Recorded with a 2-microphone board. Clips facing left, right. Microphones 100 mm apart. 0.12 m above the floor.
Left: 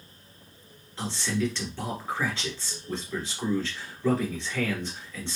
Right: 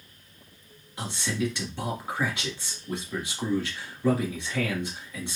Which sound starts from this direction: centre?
A man speaking, at 1.0 s.